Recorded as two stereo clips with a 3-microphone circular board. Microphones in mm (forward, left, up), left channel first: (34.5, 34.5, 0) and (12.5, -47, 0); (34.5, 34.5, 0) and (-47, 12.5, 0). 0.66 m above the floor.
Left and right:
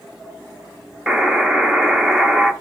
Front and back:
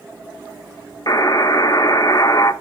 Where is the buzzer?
25° right, 0.8 m.